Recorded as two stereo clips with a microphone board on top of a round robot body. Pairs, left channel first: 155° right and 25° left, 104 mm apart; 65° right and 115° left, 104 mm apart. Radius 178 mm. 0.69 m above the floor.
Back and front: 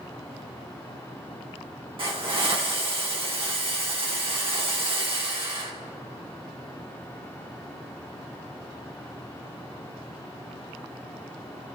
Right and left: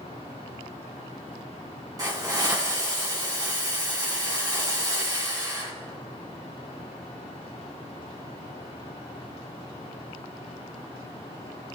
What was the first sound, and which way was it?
A hiss, 60° left.